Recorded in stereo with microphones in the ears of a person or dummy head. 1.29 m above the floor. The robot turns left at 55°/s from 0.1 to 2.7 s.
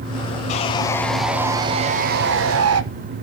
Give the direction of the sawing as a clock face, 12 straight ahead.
11 o'clock.